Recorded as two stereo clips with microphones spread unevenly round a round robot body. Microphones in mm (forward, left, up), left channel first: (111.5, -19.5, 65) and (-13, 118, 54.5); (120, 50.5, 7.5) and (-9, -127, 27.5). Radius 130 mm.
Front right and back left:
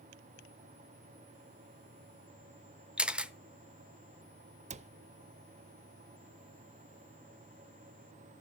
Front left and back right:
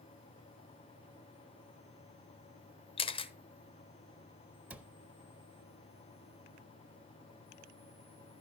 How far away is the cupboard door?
About 0.6 m.